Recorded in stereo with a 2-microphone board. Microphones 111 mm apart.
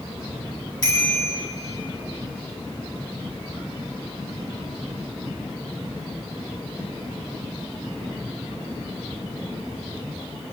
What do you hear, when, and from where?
0.8 s a bicycle bell: 40° left (ahead or behind), 4.5 m